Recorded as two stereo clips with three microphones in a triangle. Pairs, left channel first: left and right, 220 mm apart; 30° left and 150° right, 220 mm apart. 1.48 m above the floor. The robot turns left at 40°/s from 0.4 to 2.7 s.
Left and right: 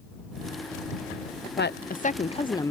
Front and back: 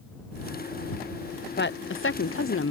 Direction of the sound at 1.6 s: 60° left.